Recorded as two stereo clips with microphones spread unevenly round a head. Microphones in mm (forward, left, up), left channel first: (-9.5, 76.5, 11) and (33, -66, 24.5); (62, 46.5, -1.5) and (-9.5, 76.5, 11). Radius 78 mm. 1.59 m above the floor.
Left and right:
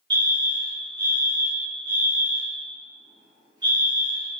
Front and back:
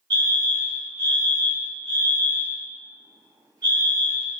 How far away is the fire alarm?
About 2.5 m.